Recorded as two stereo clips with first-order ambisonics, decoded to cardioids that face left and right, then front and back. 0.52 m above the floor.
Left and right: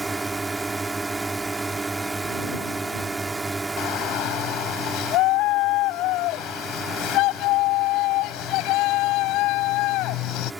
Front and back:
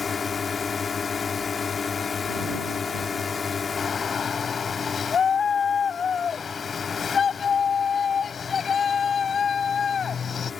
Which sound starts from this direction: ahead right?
A drone, at 0.0 s.